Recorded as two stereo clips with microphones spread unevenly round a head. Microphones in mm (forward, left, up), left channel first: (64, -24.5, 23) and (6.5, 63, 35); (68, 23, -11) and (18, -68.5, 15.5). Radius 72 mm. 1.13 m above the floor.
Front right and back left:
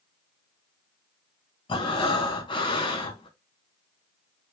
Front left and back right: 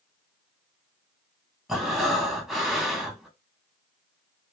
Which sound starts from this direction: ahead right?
Breathing, at 1.7 s.